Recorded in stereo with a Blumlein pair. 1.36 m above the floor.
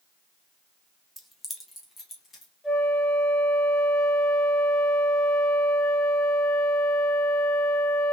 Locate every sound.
1.2 s keys jangling: straight ahead, 0.7 m; by 2.5 s 20° left, 2.5 m
2.6 s a flute: 10° left, 1.2 m